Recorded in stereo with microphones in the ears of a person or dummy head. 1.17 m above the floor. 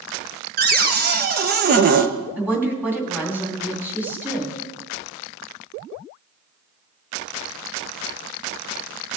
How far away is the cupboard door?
About 0.8 m.